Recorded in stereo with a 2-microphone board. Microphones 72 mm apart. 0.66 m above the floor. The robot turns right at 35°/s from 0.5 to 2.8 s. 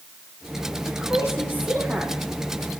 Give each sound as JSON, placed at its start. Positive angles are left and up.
{"t": 0.8, "sound": "a woman speaking", "azimuth_deg": 125, "distance_m": 5.0}